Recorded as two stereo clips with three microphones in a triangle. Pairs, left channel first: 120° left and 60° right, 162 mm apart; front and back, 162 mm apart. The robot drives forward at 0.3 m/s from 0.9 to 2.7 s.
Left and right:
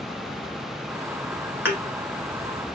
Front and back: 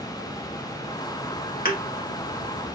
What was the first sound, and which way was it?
A thud, 15° left.